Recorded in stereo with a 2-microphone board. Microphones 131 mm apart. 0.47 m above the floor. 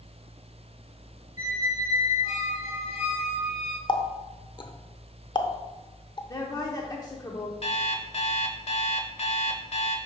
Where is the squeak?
65° left (ahead or behind), 1.4 m.